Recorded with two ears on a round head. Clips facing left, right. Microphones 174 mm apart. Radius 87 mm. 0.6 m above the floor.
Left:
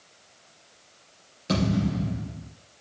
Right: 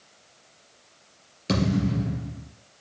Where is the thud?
25° right (ahead or behind), 3 m.